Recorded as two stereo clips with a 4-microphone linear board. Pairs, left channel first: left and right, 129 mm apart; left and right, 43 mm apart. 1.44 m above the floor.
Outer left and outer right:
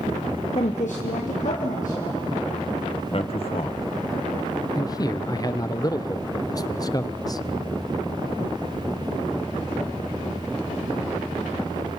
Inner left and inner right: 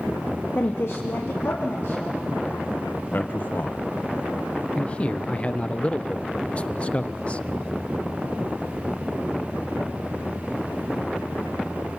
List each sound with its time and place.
0.6 s a woman speaking: 45° left (ahead or behind), 0.7 m; by 2.7 s 65° left (ahead or behind), 3 m
3.1 s a man speaking: 45° left (ahead or behind), 1.3 m
4.8 s a man speaking: 30° left (ahead or behind), 0.6 m